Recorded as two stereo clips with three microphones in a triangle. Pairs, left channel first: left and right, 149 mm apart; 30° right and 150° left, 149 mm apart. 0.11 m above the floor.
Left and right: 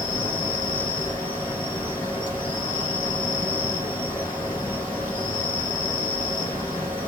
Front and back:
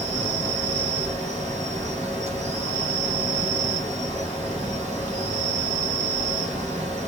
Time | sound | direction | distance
0.0 | an insect | 130° left | 3.5 m